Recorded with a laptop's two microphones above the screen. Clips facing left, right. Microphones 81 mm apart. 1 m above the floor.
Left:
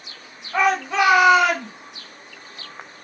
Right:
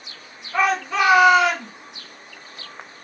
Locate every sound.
0.5 s a shout: 25° left (ahead or behind), 1.5 m; by 1.7 s 5° left (ahead or behind), 1.7 m